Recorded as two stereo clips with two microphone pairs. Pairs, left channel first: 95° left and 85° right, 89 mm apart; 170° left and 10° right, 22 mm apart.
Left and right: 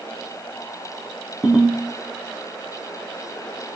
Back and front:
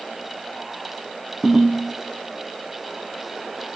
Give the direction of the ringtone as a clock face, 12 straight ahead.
12 o'clock.